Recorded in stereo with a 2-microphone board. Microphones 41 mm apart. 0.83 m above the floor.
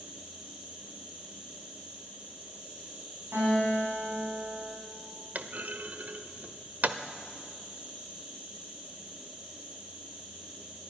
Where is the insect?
25° right (ahead or behind), 6.5 m.